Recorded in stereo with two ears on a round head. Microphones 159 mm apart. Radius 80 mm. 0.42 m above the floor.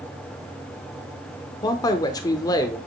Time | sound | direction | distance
1.6 | a man speaking | 20° left (ahead or behind) | 0.8 m